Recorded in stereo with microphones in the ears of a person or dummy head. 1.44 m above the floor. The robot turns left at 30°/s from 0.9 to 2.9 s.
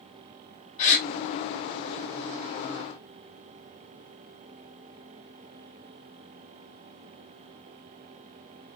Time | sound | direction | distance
0.8 | a gasp | 35° left (ahead or behind) | 1.0 m